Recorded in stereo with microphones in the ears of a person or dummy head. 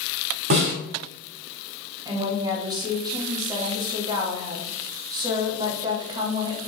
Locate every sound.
0.5 s a snare drum: 45° right (ahead or behind), 3.5 m
2.0 s a woman speaking: 20° right (ahead or behind), 1.7 m